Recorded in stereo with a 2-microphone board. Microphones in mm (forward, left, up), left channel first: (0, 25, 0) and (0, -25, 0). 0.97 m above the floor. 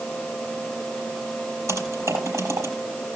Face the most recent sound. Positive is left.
turn(degrees=-80)